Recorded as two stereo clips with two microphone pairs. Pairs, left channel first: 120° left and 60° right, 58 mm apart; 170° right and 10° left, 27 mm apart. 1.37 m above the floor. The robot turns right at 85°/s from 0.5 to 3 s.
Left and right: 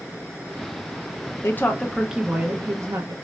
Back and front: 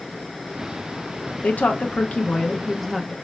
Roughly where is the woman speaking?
Behind.